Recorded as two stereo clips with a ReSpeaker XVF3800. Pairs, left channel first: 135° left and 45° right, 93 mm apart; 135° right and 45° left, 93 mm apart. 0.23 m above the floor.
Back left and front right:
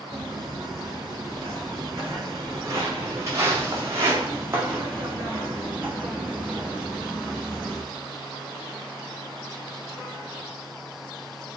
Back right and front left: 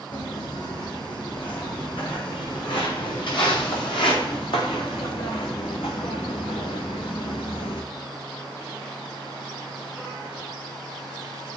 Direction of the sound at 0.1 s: 95° right.